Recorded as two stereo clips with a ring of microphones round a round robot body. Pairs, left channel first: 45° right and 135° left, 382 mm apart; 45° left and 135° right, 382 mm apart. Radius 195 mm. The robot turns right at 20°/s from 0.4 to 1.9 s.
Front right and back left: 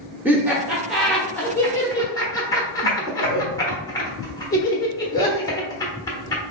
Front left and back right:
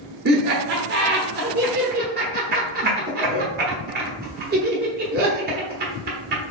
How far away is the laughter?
About 1.0 m.